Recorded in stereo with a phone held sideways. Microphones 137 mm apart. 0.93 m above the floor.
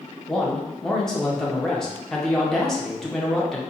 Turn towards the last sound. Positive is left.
turn(degrees=5)  # may be behind; listen again after turning